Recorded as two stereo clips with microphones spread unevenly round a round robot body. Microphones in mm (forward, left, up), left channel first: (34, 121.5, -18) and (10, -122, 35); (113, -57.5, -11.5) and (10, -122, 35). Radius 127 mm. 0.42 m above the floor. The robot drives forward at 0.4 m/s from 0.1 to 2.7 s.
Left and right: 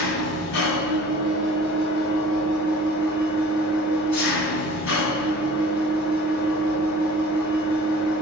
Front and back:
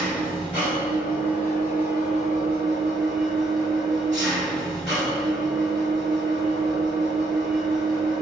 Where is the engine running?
60° left, 1.8 m; by 8.2 s 100° left, 1.6 m.